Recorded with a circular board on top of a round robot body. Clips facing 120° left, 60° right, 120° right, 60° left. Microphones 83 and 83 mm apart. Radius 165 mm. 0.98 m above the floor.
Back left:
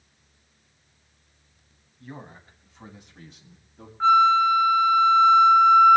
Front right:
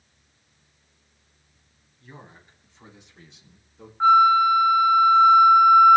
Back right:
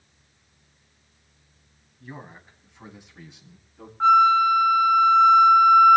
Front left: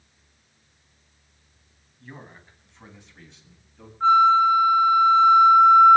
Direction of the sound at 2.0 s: 165° left.